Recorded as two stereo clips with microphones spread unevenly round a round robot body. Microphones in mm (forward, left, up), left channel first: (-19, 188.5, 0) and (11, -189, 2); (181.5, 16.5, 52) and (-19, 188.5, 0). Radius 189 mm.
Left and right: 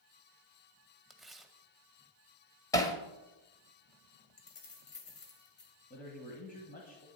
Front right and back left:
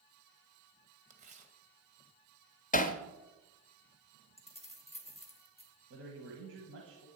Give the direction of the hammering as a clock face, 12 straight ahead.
11 o'clock.